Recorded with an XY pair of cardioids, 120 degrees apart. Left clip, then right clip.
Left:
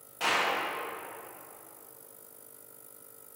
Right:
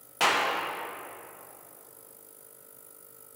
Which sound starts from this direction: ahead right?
A clap, at 0.2 s.